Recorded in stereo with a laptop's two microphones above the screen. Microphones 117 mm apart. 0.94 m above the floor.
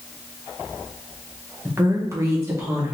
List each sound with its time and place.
1.6 s a woman speaking: 20° right (ahead or behind), 0.5 m; by 2.9 s 25° right (ahead or behind), 0.8 m